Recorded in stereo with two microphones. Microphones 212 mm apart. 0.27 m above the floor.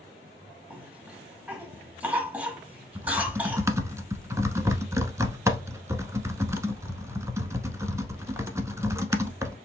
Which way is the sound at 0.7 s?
5° right (ahead or behind).